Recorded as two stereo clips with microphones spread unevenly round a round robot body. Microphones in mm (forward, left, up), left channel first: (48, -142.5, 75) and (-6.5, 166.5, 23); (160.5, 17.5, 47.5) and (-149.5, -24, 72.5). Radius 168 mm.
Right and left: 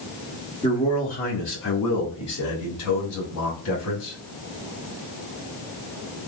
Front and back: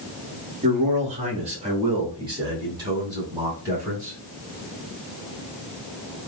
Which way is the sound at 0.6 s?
155° right.